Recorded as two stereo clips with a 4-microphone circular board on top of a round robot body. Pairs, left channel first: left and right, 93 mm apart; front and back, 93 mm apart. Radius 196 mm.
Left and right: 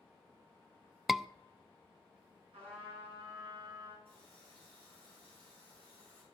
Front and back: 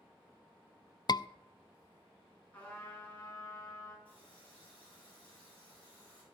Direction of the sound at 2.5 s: 75° right.